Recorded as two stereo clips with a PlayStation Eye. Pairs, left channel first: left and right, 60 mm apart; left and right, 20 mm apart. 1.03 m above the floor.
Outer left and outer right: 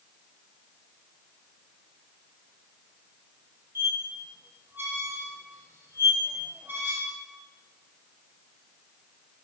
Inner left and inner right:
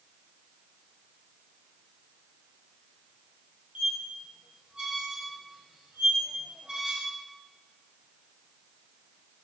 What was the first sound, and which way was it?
A squeak, 35° right (ahead or behind).